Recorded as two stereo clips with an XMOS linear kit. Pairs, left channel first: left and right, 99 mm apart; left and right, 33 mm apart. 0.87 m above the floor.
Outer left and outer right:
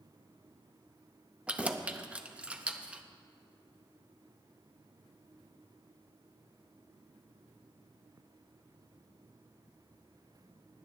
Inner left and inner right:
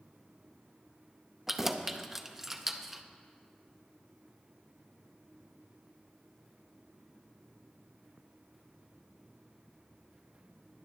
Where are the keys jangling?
15° right (ahead or behind), 0.6 m.